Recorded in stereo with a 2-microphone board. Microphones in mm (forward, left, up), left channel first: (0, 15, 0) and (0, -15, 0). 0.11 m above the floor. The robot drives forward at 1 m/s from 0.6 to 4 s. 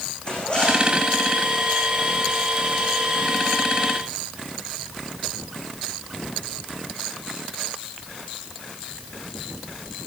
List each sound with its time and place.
0.2 s a zipper: 35° left (ahead or behind), 8 m